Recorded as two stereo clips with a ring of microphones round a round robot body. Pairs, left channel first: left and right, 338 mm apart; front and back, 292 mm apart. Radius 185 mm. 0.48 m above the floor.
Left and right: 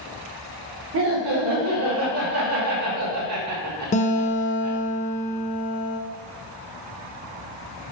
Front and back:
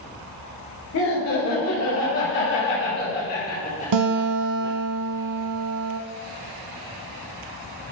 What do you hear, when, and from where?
0.9 s laughter: 40° right, 3.5 m; by 4.8 s 80° right, 2.0 m
3.9 s a guitar: 160° left, 0.9 m